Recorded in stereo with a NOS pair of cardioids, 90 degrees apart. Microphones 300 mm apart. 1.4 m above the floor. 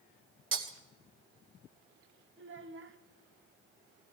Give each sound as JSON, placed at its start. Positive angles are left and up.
{"t": 0.5, "sound": "breaking glass", "azimuth_deg": -45, "distance_m": 2.5}
{"t": 2.4, "sound": "a child speaking", "azimuth_deg": -40, "distance_m": 1.8}